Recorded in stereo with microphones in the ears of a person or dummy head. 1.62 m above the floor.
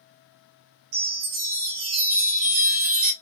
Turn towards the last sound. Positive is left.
turn(degrees=-40)  # may be behind; listen again after turning